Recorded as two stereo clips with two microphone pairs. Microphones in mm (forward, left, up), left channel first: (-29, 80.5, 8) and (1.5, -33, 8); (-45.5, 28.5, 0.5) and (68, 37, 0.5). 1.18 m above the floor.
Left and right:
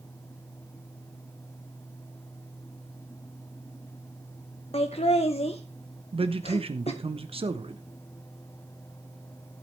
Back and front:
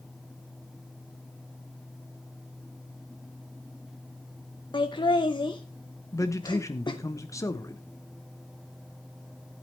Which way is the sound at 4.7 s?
135° left.